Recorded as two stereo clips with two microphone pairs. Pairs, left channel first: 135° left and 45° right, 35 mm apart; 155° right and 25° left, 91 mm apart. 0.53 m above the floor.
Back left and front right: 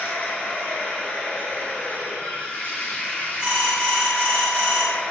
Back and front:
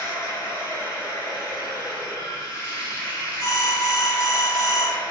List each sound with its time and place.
0.0 s running water: 160° left, 0.8 m
3.4 s an alarm: 115° right, 0.9 m